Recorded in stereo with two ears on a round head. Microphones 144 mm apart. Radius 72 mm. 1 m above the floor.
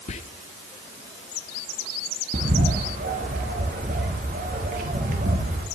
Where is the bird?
50° right (ahead or behind), 1.1 m.